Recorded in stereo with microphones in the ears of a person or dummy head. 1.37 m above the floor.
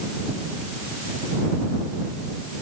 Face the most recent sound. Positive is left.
No sound to turn to.